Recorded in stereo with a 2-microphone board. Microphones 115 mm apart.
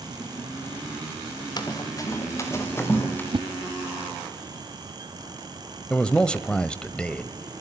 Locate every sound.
1.6 s running footsteps: 35° left (ahead or behind), 4 m; by 3.2 s 15° left (ahead or behind), 5.5 m
3.3 s a whoosh: 50° right (ahead or behind), 1.0 m
5.9 s a man speaking: 10° left (ahead or behind), 1.0 m